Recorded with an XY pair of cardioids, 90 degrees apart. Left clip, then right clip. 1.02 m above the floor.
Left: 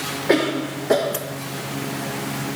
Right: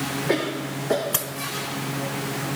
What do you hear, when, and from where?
0.3 s a cough: 40° left, 0.6 m